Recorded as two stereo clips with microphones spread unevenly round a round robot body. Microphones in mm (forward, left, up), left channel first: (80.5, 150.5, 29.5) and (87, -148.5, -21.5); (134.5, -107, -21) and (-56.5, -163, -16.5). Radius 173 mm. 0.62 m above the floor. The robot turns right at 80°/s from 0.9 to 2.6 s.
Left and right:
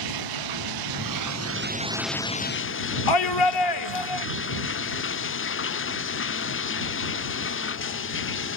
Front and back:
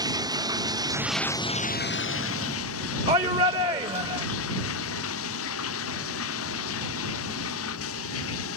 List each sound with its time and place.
0.0 s running water: 95° right; by 8.6 s 45° left
3.1 s a shout: 125° left